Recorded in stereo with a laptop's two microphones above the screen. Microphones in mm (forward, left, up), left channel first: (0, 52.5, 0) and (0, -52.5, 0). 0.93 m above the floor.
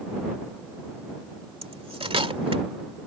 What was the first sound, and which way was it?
Cutlery clinking, 75° right (ahead or behind).